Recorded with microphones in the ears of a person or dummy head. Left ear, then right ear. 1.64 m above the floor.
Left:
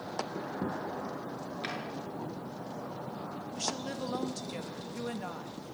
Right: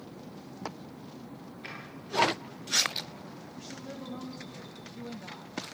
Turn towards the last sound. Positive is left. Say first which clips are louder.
# left 9 dB
turn(degrees=70)  # may be behind; listen again after turning